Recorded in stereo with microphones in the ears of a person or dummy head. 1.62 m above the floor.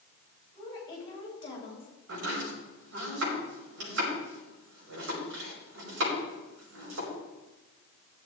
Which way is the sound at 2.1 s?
75° right (ahead or behind).